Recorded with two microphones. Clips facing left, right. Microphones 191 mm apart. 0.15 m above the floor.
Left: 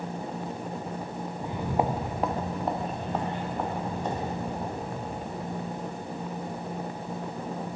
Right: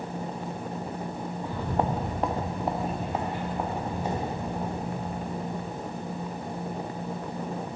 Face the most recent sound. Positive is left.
turn(degrees=-10)  # may be behind; listen again after turning